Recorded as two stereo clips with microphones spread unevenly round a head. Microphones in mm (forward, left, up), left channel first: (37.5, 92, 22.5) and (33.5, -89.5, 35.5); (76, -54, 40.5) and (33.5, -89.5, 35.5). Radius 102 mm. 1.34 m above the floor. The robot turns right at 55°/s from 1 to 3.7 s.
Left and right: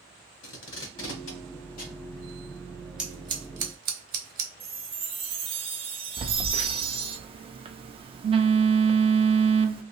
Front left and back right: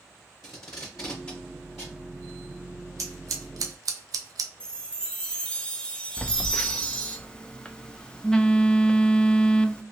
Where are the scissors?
Straight behind, 0.6 m; by 4.5 s 140° right, 0.6 m.